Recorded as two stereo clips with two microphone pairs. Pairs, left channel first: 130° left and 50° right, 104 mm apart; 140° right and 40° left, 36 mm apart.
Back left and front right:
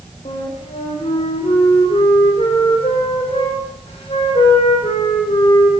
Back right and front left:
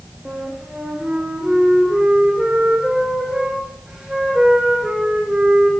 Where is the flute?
105° left, 7 m.